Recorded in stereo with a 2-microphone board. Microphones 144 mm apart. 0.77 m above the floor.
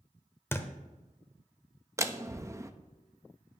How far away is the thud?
About 0.9 m.